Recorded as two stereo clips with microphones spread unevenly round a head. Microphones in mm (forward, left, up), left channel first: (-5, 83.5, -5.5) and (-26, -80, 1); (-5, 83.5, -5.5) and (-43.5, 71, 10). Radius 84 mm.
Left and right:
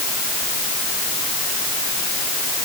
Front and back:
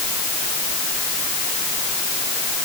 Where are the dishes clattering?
No dishes clattering in this recording.